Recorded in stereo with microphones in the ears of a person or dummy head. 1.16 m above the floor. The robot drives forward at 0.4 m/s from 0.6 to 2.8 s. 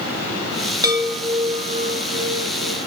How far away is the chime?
About 1.1 m.